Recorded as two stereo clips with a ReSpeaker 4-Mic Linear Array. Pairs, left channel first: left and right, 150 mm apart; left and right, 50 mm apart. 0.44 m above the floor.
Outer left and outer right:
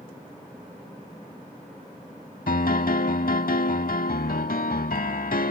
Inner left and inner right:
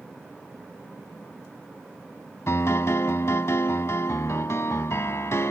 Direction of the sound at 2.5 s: 75° left (ahead or behind).